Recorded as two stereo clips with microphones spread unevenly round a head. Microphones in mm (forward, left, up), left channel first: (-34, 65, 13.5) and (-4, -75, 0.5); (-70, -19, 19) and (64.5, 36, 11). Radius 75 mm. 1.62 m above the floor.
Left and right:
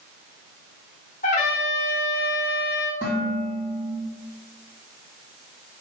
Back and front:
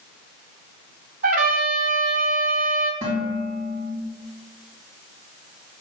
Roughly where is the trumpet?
Ahead left.